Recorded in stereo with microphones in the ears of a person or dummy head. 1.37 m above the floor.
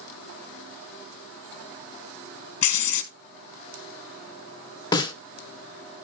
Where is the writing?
55° left (ahead or behind), 1.3 m.